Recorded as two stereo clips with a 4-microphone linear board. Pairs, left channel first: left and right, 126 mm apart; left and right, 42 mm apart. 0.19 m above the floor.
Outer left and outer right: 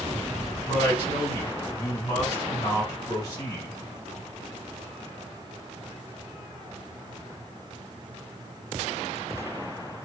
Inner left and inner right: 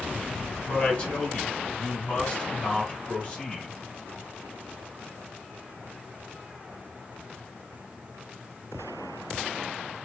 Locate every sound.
0.7 s a woman speaking: 30° left (ahead or behind), 1.7 m